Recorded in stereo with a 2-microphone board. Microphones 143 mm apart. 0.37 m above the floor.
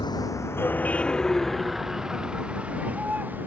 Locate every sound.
0.0 s a vehicle: 30° left (ahead or behind); by 3.5 s 10° right (ahead or behind)